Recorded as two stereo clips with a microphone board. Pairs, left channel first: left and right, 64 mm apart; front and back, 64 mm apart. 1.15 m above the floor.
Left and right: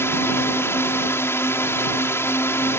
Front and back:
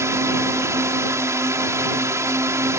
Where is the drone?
140° left.